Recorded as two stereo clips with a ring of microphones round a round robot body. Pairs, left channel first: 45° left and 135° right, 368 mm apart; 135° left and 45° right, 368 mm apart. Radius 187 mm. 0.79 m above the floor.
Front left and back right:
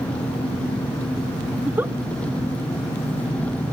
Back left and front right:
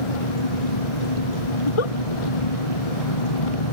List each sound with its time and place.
0.0 s an engine running: 130° left
1.6 s a giggle: 140° left